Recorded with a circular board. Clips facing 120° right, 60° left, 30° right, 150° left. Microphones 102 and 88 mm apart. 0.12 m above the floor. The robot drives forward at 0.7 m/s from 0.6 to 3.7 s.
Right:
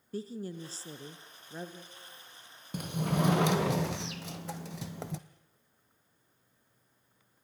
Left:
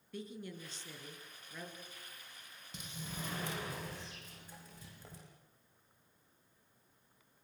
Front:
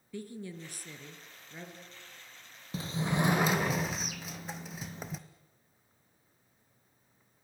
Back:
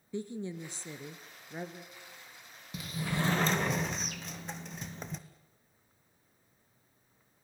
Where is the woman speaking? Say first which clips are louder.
Right 7 dB, back 4 dB; 155° right, 1.6 m; by 1.8 s 165° right, 2 m.